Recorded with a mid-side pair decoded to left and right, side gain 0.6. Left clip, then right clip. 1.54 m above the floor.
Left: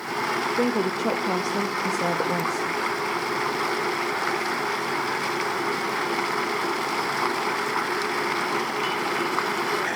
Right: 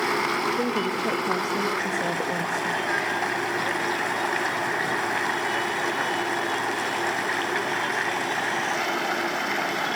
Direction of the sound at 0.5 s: 20° left.